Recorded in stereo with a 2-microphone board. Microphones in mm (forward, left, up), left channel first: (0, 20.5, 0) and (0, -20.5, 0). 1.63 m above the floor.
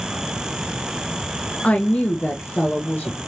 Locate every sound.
1.6 s a woman speaking: 30° left (ahead or behind), 0.6 m; by 3.3 s 55° left (ahead or behind), 1.4 m